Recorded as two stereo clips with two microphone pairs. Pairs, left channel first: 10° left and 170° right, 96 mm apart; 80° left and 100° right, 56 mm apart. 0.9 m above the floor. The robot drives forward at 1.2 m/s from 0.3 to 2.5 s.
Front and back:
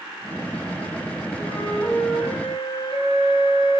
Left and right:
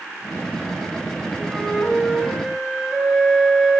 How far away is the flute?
About 4.5 m.